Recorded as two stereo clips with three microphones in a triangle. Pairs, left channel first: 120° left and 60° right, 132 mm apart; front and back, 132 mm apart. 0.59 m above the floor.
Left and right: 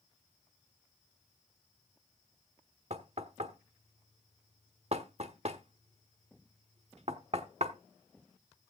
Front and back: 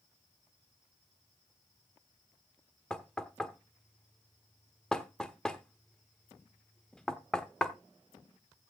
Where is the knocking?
85° right, 1.2 m.